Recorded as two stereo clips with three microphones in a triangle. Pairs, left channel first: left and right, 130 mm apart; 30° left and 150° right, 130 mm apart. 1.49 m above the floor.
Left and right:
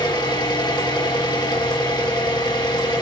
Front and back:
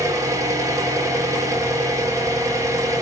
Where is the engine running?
145° left, 4 m.